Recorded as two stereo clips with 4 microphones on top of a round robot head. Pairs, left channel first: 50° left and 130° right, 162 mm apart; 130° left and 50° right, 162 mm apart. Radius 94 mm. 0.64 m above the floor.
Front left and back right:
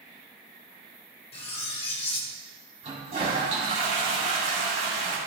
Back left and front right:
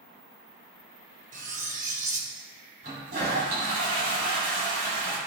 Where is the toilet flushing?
80° right, 3.5 m.